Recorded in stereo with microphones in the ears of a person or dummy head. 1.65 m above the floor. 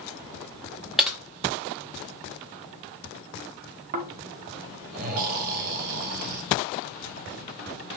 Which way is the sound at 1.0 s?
5° right (ahead or behind).